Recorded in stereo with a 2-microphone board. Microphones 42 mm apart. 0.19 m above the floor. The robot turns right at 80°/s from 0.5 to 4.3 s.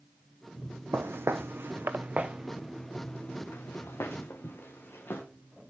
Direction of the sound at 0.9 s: 80° right.